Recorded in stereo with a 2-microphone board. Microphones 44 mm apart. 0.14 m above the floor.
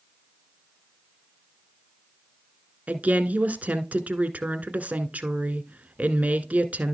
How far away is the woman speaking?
About 1.5 m.